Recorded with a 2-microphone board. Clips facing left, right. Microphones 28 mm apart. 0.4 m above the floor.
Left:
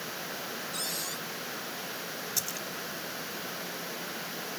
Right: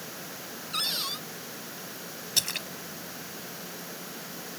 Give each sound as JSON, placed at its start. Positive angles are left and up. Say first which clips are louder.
{"t": 0.7, "sound": "a cupboard door", "louder": "right 9 dB", "side_deg": -50}
{"t": 2.4, "sound": "a splash", "louder": "right 9 dB", "side_deg": -70}